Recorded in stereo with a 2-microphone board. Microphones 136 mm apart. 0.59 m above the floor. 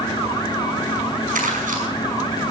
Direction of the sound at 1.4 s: 80° right.